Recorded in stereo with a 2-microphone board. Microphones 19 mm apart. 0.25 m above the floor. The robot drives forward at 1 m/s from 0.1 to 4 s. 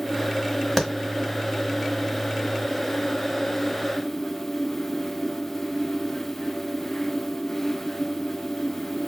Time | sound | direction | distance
0.8 | a clap | 5° left (ahead or behind) | 1.3 m